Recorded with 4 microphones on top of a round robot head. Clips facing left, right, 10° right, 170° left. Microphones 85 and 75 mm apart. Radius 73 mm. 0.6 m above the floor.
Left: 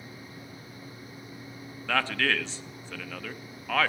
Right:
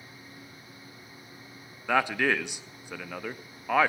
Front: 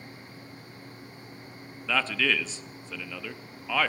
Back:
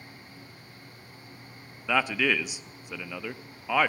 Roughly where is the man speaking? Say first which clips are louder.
Right 2 dB, back 2 dB; behind right.